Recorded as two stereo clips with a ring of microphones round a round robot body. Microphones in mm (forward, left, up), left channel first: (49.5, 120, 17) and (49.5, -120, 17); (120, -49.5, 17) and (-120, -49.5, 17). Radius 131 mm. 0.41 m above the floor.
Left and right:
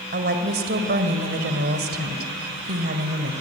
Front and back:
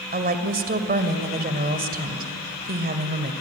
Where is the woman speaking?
135° right, 2 m.